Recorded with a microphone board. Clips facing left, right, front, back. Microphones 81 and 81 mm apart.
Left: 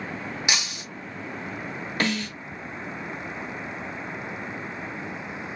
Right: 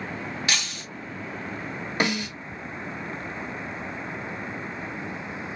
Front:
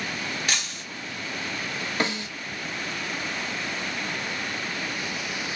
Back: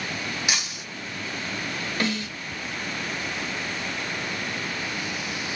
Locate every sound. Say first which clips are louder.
0.5 s breaking glass: left 2 dB, back 1 dB; 125° left, 0.8 m
2.0 s a snare drum: right 1 dB, back 1 dB; 35° right, 1.0 m